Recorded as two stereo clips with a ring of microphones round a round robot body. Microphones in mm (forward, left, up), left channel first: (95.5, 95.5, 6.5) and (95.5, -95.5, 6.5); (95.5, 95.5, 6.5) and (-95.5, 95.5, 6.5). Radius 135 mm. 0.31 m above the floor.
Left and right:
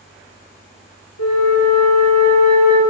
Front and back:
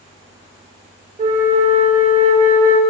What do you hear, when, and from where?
1.2 s a flute: 125° left, 5 m